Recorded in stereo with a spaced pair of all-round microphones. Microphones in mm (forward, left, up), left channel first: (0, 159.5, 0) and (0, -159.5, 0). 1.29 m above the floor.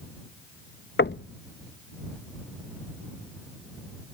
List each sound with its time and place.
1.0 s knocking: 35° left (ahead or behind)